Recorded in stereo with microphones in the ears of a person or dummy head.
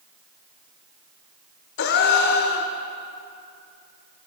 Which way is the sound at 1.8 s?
60° left (ahead or behind).